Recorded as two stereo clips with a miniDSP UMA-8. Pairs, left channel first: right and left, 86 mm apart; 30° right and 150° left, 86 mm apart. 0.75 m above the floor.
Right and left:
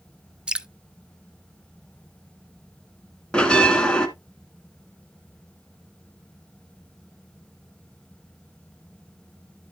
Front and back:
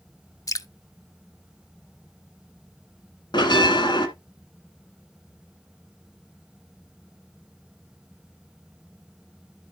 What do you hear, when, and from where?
0.5 s dripping: 10° left, 0.6 m
3.3 s a bell: 10° right, 1.5 m